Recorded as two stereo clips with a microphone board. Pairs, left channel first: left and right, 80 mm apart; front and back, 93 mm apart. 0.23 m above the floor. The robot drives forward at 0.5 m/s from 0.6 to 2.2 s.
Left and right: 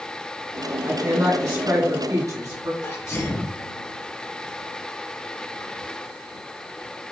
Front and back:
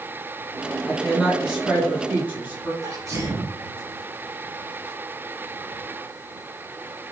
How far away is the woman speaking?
About 1.7 m.